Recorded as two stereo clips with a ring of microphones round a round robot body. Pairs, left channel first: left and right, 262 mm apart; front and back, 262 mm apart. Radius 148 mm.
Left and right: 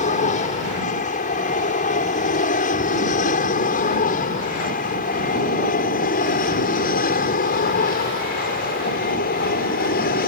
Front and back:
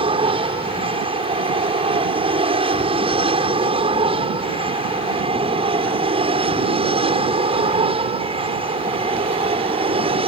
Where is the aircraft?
125° left.